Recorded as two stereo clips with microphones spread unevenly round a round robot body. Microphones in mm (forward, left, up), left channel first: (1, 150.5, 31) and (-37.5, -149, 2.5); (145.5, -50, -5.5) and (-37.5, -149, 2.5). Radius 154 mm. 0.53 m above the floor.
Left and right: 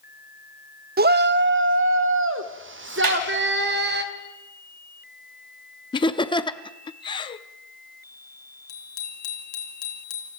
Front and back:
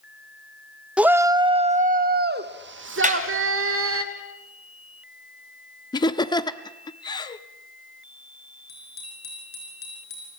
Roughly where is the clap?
Right.